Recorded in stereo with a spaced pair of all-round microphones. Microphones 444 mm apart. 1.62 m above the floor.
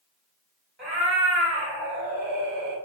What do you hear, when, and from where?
0.8 s a cat meowing: 25° right (ahead or behind), 1.6 m